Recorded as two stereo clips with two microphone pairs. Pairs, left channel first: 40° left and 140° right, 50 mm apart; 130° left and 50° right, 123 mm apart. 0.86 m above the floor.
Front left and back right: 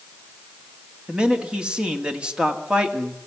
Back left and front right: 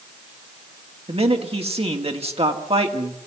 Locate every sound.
1.1 s a man speaking: 75° right, 2 m